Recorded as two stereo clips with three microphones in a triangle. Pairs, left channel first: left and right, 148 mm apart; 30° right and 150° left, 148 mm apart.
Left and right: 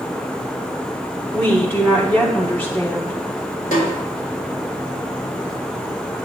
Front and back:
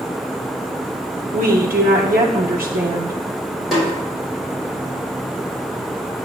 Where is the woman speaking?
170° left, 0.9 m.